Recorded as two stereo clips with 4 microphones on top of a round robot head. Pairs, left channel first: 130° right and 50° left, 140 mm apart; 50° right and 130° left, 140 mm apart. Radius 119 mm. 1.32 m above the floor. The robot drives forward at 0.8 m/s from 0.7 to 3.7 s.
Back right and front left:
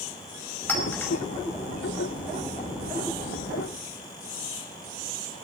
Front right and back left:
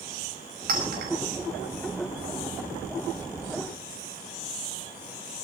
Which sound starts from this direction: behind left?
A clink, at 0.7 s.